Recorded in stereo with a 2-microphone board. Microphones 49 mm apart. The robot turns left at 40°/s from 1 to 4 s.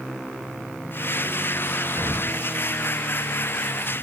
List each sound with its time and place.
2.0 s an explosion: 75° right (ahead or behind); by 2.4 s 90° right